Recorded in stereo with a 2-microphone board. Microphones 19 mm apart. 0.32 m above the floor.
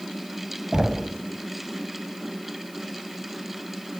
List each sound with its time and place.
0.7 s knocking: 25° right (ahead or behind), 1.3 m